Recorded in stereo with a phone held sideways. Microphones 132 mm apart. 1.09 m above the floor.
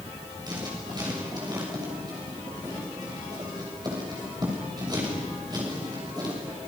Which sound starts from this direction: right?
Writing, at 0.5 s.